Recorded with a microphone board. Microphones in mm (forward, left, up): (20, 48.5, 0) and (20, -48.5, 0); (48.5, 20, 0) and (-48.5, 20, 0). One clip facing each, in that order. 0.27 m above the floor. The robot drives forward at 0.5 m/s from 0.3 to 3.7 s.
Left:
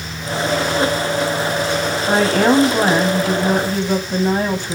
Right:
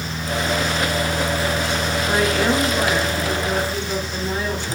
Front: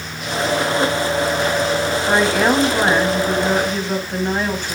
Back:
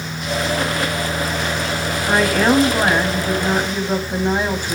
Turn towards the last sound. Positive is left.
turn(degrees=105)